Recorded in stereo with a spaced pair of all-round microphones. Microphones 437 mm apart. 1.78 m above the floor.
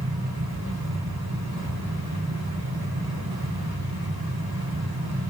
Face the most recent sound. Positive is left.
turn(degrees=-55)  # may be behind; listen again after turning